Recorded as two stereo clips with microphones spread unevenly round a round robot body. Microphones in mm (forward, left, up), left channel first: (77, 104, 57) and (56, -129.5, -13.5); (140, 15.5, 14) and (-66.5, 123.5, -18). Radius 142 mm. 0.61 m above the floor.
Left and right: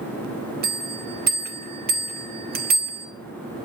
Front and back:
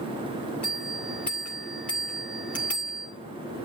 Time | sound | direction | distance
0.6 | a bell | 115° right | 2 m